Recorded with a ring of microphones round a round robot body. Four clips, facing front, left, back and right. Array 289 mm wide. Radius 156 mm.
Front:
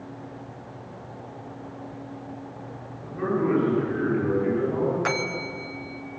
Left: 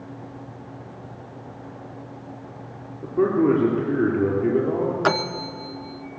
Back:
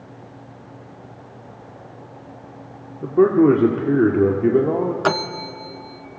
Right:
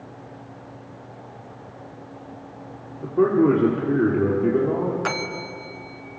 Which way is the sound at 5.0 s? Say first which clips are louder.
Left 5 dB, back 6 dB; 145° left.